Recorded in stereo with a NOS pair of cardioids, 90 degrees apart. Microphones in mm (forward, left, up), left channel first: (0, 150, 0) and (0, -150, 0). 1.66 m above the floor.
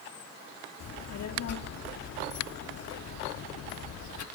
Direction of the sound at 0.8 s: 60° left.